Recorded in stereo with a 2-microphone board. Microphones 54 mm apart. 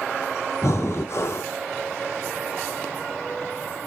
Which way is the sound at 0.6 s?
60° left (ahead or behind).